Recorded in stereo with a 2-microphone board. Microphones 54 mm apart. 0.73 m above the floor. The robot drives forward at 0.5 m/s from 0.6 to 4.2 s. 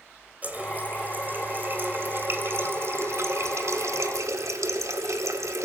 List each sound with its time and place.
0.4 s a running tap: 30° right (ahead or behind), 2.5 m; by 5.7 s 75° right (ahead or behind), 1.2 m